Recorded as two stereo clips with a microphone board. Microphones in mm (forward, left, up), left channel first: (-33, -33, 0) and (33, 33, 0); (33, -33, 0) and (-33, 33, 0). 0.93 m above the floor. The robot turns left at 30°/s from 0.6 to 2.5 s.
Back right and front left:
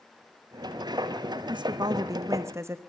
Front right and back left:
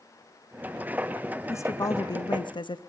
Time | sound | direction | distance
1.5 | a woman speaking | 15° left | 0.8 m